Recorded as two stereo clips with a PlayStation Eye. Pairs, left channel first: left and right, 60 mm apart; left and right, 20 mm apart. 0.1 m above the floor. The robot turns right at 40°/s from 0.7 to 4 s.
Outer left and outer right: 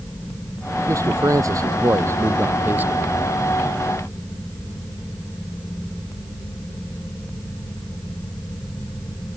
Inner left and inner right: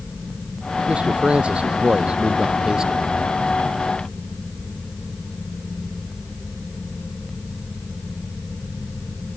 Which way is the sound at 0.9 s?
110° right.